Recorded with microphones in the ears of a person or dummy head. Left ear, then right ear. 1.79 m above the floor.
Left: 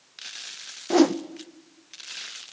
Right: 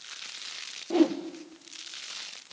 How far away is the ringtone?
No ringtone in this recording.